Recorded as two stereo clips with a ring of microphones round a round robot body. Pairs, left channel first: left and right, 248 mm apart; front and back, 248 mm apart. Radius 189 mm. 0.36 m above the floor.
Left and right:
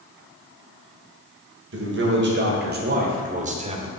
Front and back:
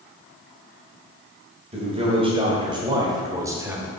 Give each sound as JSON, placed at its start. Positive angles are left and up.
{"t": 1.7, "sound": "a man speaking", "azimuth_deg": -115, "distance_m": 2.0}